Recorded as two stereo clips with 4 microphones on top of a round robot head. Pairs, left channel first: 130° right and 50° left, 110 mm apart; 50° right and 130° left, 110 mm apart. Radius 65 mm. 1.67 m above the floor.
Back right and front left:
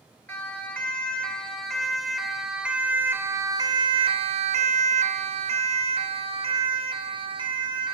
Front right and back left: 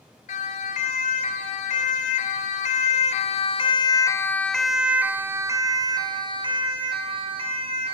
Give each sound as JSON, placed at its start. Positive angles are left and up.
{"t": 0.3, "sound": "a siren", "azimuth_deg": -55, "distance_m": 4.0}